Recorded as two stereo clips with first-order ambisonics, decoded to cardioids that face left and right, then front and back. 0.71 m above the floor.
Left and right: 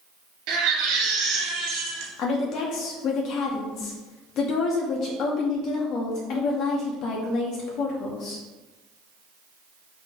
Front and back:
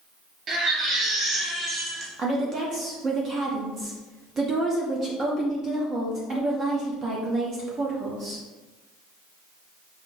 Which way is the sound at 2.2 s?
120° left.